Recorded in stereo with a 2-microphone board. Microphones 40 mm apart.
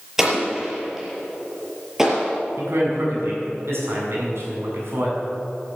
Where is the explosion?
10° right (ahead or behind), 5 m.